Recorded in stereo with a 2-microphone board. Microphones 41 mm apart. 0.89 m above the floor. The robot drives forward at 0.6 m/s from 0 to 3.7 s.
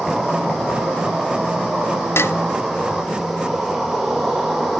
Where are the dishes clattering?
75° left (ahead or behind), 0.6 m; by 2.4 s 70° left (ahead or behind), 0.6 m.